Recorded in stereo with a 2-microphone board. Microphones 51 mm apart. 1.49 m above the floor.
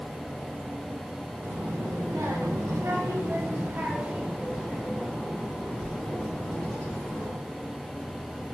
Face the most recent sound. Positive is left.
turn(degrees=20)  # may be behind; listen again after turning